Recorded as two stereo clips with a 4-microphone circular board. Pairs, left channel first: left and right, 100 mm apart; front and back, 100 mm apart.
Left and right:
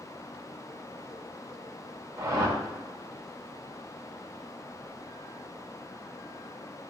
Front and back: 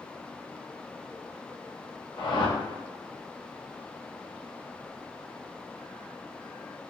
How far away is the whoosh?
About 2.5 m.